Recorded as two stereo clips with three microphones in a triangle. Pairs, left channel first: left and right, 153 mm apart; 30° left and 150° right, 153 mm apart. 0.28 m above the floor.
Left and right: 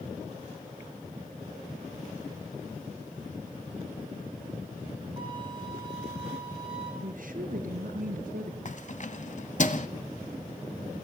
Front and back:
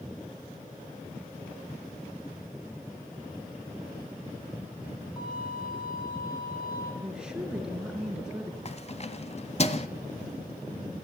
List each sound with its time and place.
5.2 s a violin: 30° right, 8.5 m
7.0 s a woman speaking: 65° right, 4.5 m
8.7 s keys jangling: 65° left, 1.3 m